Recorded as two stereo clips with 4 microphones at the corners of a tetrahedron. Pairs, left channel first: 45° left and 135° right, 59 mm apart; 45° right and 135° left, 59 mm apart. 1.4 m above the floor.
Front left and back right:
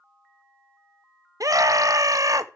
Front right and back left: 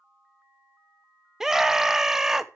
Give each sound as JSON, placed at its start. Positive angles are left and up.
{"t": 1.4, "sound": "a scream", "azimuth_deg": -145, "distance_m": 0.9}